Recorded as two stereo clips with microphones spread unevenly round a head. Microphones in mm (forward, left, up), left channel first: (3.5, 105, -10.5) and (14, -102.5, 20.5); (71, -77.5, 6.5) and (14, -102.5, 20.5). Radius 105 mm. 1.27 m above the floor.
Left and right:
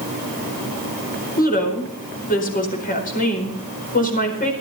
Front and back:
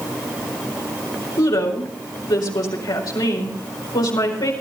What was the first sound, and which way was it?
A woman speaking, 40° left.